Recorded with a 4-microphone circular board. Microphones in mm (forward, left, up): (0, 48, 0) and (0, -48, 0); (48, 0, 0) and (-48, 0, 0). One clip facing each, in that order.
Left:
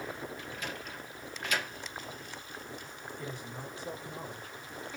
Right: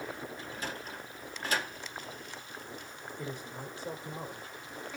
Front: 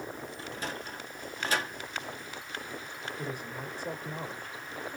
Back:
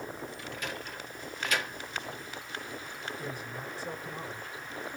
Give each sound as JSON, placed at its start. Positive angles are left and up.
{"t": 0.4, "sound": "a sliding door", "azimuth_deg": -45, "distance_m": 1.3}
{"t": 3.2, "sound": "a man speaking", "azimuth_deg": -25, "distance_m": 3.5}